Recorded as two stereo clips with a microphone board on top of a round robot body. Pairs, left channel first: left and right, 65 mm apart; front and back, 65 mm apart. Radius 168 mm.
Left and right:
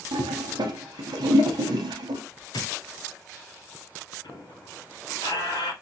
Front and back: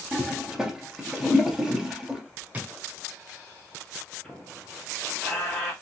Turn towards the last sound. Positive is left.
turn(degrees=85)